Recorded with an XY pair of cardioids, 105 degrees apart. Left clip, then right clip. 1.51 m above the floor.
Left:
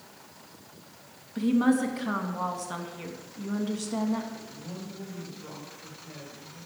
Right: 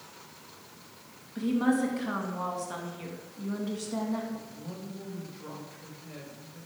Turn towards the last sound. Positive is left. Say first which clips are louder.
# left 1 dB
turn(degrees=-30)